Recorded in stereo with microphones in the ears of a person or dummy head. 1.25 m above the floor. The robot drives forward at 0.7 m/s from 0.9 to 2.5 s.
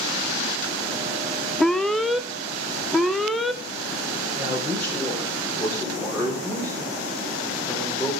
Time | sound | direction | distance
1.6 | an alarm | centre (ahead or behind) | 0.6 m
4.4 | a man speaking | 10° left (ahead or behind) | 5 m